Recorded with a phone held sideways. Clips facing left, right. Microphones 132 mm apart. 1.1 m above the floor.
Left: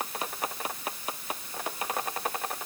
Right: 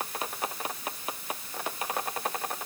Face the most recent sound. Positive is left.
No sound to turn to.